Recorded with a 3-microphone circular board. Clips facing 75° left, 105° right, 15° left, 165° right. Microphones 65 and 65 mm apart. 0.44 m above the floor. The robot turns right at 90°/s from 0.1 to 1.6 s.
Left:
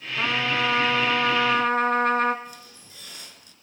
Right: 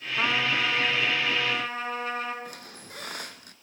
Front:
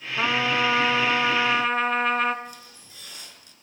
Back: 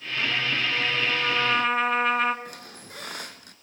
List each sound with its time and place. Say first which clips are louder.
0.2 s a trumpet: left 2 dB, front 5 dB; 25° right, 1.1 m; by 2.4 s 105° left, 1.1 m
2.5 s a squeak: right 2 dB, back 2 dB; 135° right, 0.8 m